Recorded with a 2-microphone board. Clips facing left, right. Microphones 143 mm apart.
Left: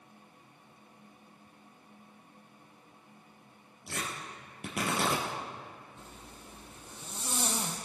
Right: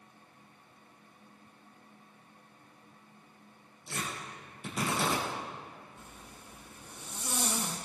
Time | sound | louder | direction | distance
3.9 | tearing paper | even | 65° left (ahead or behind) | 3 m
6.0 | a zipper | left 1 dB | 25° left (ahead or behind) | 1.7 m